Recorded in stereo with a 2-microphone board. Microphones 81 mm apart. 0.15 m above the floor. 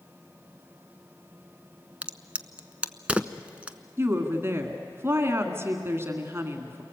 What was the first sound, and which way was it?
A crack, 15° right (ahead or behind).